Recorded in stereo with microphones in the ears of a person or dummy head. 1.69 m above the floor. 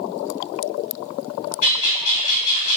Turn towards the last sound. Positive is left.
turn(degrees=45)  # may be behind; listen again after turning